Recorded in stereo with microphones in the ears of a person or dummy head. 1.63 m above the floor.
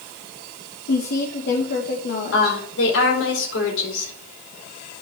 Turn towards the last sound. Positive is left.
turn(degrees=85)